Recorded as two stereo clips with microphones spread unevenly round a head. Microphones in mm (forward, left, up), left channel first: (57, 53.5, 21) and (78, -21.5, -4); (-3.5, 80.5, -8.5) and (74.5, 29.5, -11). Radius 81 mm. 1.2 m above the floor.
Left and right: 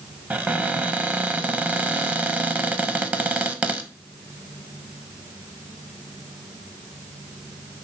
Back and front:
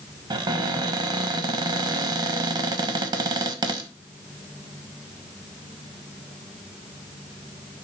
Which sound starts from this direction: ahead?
A cupboard door, at 0.3 s.